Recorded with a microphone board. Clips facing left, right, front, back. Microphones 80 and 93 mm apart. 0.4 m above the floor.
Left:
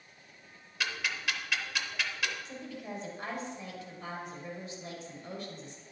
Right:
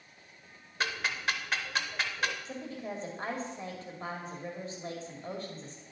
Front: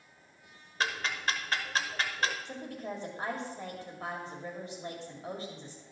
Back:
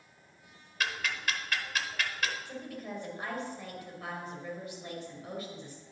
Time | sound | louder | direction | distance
0.8 | ticking | right 2 dB, front 2 dB | 50° right | 0.8 m
2.5 | a woman speaking | right 3 dB, front 1 dB | 50° right | 2 m